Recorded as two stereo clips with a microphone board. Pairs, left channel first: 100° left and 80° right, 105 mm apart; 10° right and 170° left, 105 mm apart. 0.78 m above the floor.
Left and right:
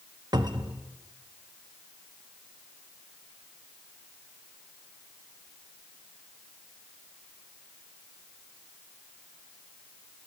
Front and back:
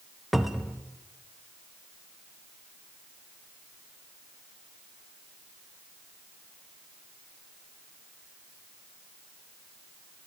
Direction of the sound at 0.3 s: 105° right.